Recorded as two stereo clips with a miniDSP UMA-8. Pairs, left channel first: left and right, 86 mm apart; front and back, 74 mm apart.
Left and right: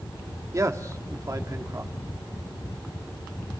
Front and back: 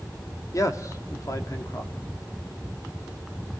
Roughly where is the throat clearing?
No throat clearing in this recording.